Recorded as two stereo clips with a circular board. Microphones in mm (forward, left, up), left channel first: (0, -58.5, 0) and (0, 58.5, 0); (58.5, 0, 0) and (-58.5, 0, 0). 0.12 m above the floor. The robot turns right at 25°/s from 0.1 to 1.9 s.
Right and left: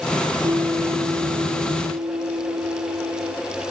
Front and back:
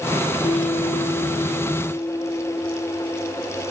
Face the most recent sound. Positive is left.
turn(degrees=65)